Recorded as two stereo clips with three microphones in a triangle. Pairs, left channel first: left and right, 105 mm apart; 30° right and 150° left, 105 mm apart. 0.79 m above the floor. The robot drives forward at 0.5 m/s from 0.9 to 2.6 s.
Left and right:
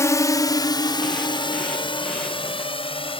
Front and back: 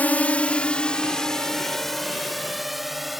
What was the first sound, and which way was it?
A drone, 40° left.